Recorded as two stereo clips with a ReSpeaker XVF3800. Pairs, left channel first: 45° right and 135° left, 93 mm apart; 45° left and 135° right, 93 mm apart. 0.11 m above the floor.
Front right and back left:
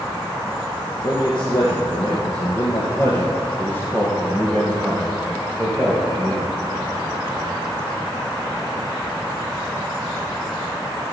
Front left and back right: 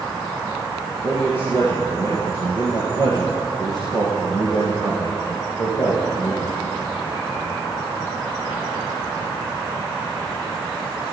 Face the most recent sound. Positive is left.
turn(degrees=50)